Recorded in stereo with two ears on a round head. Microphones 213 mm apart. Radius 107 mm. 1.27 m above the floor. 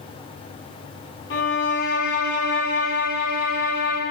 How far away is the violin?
About 0.6 m.